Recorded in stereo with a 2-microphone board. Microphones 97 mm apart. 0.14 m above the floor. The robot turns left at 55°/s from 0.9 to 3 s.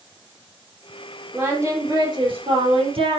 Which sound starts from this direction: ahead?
Singing, at 1.3 s.